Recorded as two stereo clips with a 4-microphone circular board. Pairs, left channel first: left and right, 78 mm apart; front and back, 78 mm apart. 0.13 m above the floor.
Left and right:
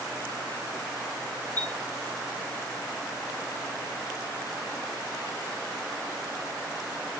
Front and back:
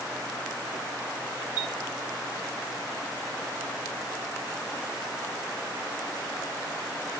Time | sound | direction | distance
1.6 | a chime | 25° left | 2.5 m